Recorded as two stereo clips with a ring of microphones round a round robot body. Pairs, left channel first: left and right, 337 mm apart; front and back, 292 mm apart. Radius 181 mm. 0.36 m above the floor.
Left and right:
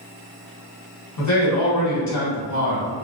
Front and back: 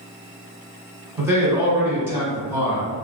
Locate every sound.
1.2 s a man speaking: 100° left, 1.4 m